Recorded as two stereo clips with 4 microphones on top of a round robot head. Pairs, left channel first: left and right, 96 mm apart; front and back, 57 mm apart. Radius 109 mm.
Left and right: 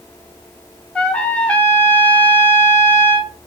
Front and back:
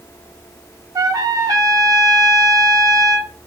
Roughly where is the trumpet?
Behind.